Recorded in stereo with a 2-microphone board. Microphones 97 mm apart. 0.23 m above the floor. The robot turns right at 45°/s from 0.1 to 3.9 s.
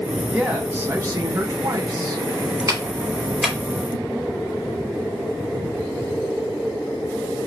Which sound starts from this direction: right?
A clap, at 2.7 s.